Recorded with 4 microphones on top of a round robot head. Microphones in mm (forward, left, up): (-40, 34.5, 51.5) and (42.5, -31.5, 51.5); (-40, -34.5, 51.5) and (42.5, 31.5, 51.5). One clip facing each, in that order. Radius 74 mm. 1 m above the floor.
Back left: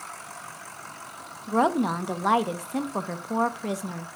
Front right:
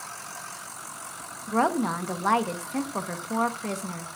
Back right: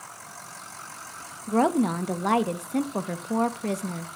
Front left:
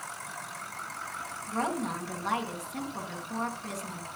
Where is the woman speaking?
140° right, 0.9 m.